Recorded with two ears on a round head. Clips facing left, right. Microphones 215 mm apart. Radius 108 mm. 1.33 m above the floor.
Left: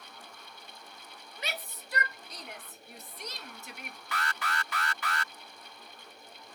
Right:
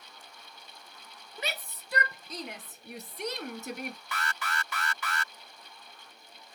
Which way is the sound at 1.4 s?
75° right (ahead or behind).